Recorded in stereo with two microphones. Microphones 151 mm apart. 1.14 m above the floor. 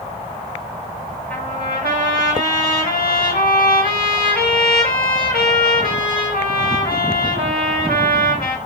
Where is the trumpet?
85° left, 5 m.